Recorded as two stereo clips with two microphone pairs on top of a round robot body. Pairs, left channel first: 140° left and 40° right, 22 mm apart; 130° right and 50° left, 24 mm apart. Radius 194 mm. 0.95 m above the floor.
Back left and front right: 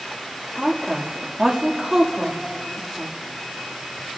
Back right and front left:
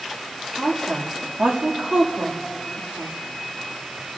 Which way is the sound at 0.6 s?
35° left.